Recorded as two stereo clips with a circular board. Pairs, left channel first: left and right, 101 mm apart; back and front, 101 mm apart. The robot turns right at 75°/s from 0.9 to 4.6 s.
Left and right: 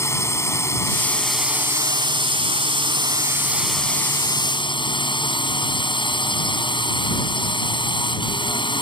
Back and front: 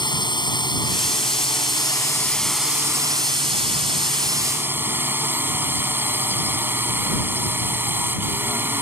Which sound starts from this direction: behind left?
A drone, at 0.0 s.